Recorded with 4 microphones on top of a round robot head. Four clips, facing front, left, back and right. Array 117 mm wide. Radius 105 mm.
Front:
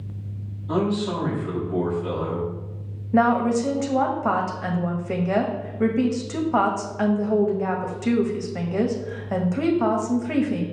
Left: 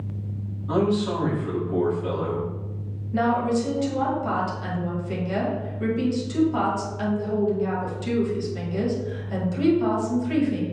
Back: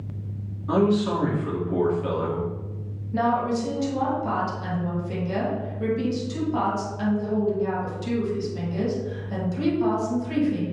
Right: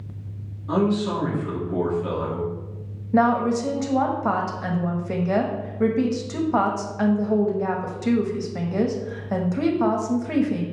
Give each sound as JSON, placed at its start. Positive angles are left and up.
{"t": 0.7, "sound": "a man speaking", "azimuth_deg": -170, "distance_m": 2.5}
{"t": 3.1, "sound": "a woman speaking", "azimuth_deg": -40, "distance_m": 1.3}